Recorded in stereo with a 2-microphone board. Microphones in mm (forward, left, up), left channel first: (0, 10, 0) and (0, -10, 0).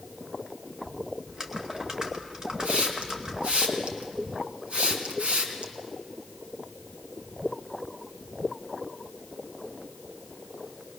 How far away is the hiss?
About 3 m.